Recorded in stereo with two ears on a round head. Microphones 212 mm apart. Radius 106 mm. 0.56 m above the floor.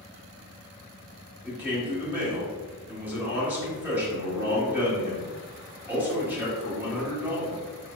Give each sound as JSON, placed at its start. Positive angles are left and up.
{"t": 1.4, "sound": "a man speaking", "side_deg": -10, "distance_m": 1.2}